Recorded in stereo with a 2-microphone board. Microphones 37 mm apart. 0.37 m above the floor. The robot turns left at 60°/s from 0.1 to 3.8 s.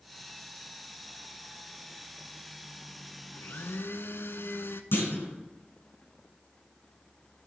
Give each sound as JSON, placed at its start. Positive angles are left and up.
{"t": 3.3, "sound": "a blender", "side_deg": 55, "distance_m": 0.7}
{"t": 4.9, "sound": "a clunk", "side_deg": 75, "distance_m": 4.5}